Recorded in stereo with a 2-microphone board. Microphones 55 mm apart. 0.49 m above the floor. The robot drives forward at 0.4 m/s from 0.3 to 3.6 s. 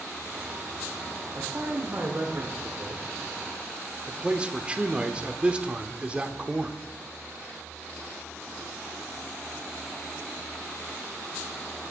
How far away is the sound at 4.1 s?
About 0.9 m.